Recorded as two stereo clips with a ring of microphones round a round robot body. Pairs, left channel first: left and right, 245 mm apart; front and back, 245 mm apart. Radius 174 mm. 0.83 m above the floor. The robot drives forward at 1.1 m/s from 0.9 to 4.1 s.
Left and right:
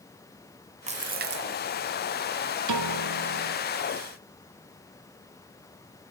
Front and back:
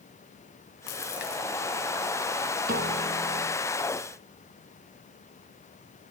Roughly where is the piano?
Right.